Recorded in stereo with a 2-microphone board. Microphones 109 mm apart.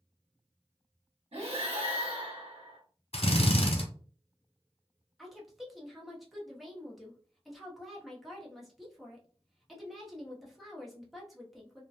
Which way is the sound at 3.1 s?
65° left (ahead or behind).